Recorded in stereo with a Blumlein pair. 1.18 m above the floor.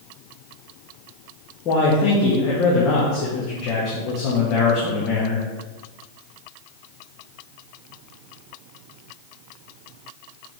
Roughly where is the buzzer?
No buzzer in this recording.